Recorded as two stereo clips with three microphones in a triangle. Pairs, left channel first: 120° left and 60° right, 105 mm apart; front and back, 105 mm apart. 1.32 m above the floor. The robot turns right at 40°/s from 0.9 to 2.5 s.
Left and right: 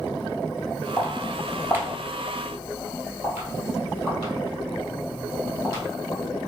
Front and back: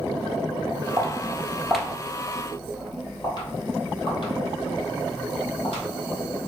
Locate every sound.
1.0 s footsteps: 175° right, 1.4 m; by 5.8 s 15° left, 3 m